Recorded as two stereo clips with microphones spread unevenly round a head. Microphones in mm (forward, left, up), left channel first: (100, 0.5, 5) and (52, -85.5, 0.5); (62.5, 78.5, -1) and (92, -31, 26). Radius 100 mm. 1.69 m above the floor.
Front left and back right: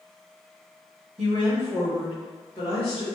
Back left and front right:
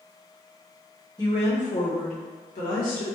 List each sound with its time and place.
1.2 s a woman speaking: straight behind, 0.7 m; by 3.0 s 125° left, 1.4 m